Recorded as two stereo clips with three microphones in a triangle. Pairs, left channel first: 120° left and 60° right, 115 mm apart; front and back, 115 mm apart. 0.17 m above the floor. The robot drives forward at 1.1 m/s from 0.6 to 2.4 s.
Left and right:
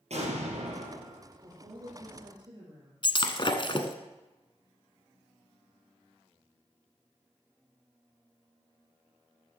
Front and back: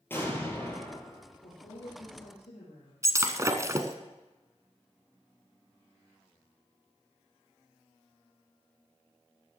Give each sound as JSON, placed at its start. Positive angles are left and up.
{"t": 0.1, "sound": "an explosion", "azimuth_deg": -70, "distance_m": 4.5}
{"t": 1.4, "sound": "a woman speaking", "azimuth_deg": -10, "distance_m": 6.0}
{"t": 3.0, "sound": "breaking glass", "azimuth_deg": 130, "distance_m": 1.2}